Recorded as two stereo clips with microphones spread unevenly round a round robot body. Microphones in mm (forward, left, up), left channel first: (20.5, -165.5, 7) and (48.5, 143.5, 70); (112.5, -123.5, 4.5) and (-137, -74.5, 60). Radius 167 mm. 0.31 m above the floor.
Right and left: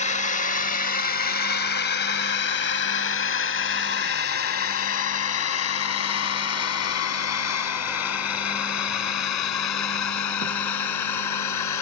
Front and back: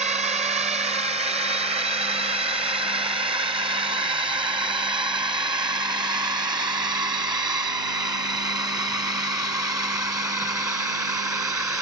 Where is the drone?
125° right; by 11.8 s 110° right.